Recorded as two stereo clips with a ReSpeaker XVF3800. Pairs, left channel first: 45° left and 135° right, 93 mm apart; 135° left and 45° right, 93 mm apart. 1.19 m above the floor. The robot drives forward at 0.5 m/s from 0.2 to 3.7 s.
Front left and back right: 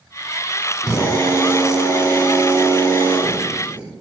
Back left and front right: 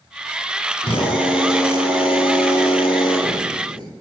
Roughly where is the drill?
Behind left.